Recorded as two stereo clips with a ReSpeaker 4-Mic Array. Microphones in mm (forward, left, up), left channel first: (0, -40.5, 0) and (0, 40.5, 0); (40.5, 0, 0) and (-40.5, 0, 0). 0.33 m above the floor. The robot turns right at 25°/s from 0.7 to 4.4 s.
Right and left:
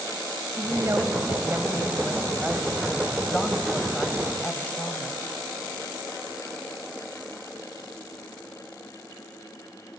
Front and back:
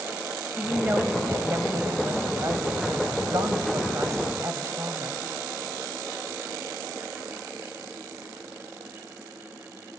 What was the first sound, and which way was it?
A woman speaking, 115° left.